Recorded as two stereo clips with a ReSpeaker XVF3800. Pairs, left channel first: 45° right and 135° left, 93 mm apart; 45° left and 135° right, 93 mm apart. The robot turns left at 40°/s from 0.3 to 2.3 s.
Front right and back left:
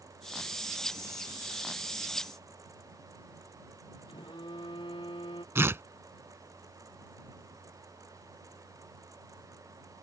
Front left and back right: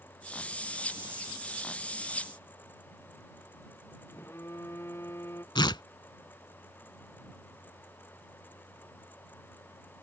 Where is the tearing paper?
75° left.